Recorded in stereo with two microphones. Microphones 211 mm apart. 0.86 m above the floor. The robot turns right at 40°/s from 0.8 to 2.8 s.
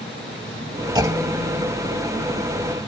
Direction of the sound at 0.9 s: 20° right (ahead or behind).